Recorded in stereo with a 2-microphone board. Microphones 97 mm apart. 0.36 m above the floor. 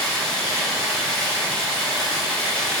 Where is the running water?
10° left (ahead or behind), 0.8 m.